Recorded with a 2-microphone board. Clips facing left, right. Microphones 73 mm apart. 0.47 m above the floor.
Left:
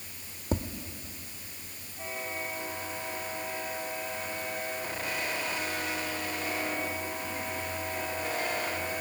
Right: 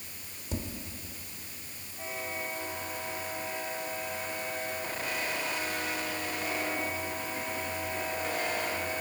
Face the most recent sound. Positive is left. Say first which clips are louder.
# left 5 dB
turn(degrees=45)  # may be behind; listen again after turning